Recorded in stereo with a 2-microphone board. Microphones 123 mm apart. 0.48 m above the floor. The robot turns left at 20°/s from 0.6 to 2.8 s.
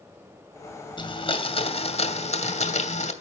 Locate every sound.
1.0 s a blender: 135° left, 2.5 m; by 3.1 s 95° left, 2.5 m